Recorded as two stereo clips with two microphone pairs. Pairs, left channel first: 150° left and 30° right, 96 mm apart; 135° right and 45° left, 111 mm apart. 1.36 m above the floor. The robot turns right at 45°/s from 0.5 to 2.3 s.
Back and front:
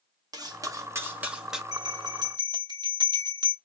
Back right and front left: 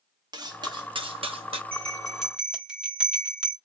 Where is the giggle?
No giggle in this recording.